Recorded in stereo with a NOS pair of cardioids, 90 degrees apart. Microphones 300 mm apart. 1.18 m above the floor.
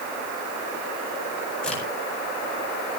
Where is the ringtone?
I don't hear a ringtone.